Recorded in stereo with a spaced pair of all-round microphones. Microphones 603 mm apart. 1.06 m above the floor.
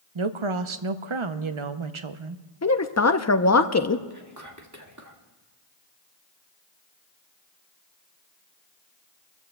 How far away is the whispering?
About 1.8 m.